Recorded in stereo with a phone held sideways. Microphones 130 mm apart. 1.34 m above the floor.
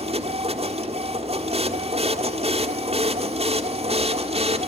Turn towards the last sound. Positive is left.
turn(degrees=-50)  # may be behind; listen again after turning